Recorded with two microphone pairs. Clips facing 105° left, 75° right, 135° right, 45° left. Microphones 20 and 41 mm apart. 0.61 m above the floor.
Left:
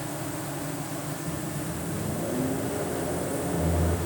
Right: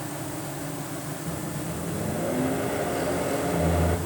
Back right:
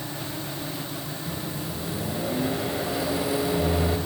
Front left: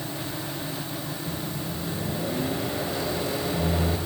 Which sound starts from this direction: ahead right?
A microwave, at 1.3 s.